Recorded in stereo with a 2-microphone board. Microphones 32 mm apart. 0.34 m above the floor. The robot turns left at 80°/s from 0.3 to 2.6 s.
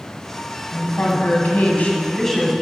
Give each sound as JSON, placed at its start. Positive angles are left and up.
{"t": 0.7, "sound": "a woman speaking", "azimuth_deg": 140, "distance_m": 1.9}